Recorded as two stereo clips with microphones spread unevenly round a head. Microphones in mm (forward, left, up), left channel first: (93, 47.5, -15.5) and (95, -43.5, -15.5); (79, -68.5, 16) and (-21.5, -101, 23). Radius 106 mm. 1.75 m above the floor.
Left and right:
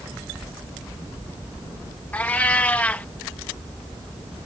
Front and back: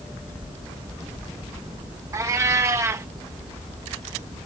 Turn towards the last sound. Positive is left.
turn(degrees=155)